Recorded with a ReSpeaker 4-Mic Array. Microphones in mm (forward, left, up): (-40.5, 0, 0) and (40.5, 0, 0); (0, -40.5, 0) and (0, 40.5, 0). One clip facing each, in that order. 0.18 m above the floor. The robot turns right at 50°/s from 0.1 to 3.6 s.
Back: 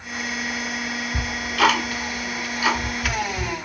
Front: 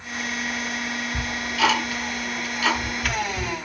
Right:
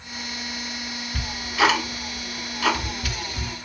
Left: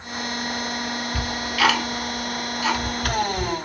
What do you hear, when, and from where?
1.1 s ticking: straight behind, 0.6 m; by 3.5 s 60° right, 0.6 m